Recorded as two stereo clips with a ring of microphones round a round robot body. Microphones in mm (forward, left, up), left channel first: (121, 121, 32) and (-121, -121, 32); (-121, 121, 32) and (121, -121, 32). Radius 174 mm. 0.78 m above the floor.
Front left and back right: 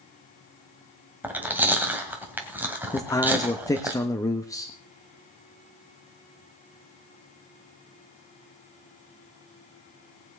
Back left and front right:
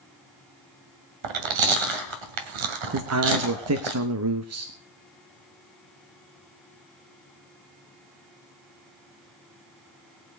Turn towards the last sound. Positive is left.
turn(degrees=-30)